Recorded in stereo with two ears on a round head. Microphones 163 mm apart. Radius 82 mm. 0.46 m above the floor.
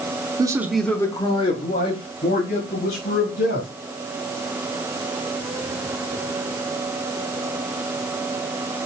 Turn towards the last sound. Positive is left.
turn(degrees=65)  # may be behind; listen again after turning